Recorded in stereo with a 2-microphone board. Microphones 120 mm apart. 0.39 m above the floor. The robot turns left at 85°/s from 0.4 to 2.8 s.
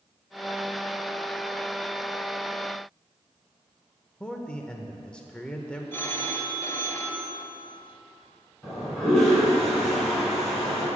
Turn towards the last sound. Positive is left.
turn(degrees=5)  # may be behind; listen again after turning